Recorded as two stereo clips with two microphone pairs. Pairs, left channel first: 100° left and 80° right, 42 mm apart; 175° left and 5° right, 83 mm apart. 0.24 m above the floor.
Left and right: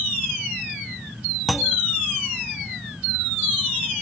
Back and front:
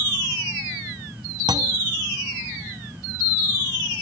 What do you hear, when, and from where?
1.5 s a clunk: 10° left